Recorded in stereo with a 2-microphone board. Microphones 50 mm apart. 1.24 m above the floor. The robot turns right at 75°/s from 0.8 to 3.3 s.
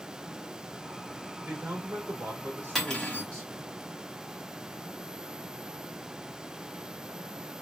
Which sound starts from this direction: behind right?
A man speaking, at 1.4 s.